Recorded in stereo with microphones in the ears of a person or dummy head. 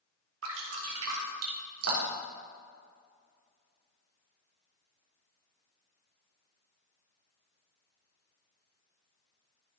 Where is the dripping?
80° right, 3 m.